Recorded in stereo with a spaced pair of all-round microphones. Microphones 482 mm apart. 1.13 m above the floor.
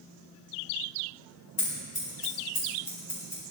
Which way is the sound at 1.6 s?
85° left.